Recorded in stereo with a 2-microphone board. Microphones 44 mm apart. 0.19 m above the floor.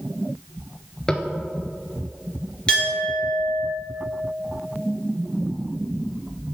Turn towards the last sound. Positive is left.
turn(degrees=25)  # may be behind; listen again after turning